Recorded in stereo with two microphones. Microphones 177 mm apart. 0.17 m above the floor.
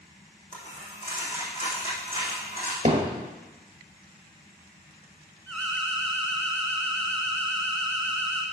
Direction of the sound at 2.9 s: 35° right (ahead or behind).